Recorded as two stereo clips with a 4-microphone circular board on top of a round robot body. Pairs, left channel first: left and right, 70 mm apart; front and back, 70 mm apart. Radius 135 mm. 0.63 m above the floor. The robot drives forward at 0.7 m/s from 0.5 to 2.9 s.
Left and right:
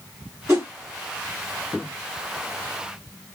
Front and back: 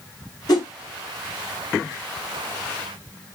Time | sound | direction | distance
0.5 | a whoosh | 10° right | 1.7 m